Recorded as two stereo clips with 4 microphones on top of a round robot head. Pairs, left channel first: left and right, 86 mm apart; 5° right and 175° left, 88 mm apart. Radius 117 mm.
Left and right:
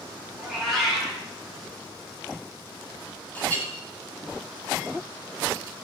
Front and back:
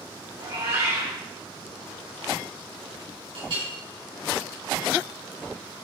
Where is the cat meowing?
Straight behind, 4 m.